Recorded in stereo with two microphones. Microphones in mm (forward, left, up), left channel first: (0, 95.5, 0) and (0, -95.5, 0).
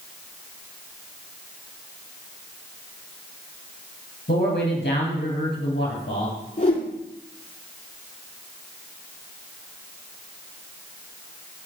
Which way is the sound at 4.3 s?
60° left (ahead or behind).